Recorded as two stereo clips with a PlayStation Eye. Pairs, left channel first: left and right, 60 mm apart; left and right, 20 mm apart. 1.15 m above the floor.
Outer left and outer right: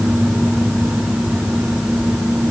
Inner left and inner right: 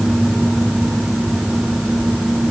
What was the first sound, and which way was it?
Only background noise.